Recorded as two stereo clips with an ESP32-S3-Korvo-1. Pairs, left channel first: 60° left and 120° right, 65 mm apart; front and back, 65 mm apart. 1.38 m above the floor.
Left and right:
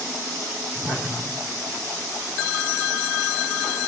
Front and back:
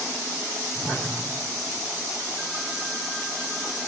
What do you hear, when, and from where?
0.8 s a whoosh: 20° left, 2.0 m